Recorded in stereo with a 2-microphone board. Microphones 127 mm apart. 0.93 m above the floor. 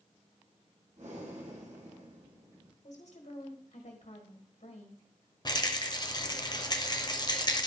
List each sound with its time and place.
1.0 s breathing: 65° right (ahead or behind), 2 m
2.8 s a woman speaking: 65° left (ahead or behind), 1.8 m
5.5 s a rattle: 35° left (ahead or behind), 0.8 m